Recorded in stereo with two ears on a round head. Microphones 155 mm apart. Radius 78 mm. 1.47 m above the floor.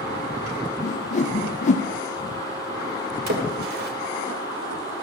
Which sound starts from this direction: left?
A whoosh, at 0.8 s.